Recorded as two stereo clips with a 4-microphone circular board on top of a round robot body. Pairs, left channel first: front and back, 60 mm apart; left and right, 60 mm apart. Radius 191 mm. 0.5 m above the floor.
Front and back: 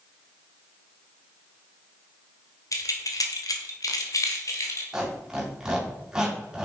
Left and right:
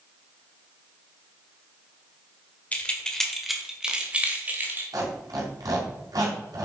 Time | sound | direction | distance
2.7 | keys jangling | 25° left | 2.0 m
4.9 | a squeak | 100° right | 4 m